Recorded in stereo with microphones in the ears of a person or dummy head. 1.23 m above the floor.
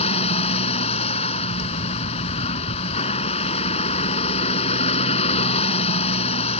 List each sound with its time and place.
0.0 s a vehicle: 35° left (ahead or behind)